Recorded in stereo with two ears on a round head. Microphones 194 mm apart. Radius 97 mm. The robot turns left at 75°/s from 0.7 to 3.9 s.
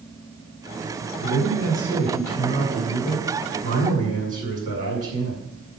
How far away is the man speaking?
About 6.5 m.